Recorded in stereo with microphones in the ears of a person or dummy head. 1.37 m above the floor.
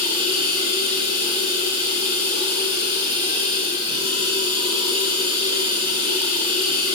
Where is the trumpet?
I don't hear a trumpet.